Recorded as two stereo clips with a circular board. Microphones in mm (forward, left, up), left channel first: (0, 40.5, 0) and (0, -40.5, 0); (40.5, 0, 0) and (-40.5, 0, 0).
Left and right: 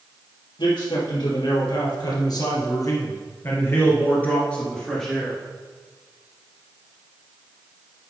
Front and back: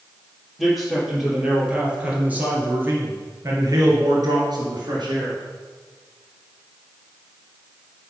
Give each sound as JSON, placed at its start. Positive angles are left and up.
{"t": 0.6, "sound": "a man speaking", "azimuth_deg": 90, "distance_m": 4.0}